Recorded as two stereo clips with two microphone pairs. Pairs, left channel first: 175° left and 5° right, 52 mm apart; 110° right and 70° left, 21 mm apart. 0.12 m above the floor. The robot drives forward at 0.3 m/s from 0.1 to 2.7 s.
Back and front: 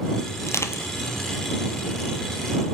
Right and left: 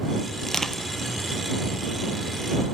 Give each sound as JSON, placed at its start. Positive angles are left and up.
{"t": 0.4, "sound": "crushing", "azimuth_deg": -170, "distance_m": 1.0}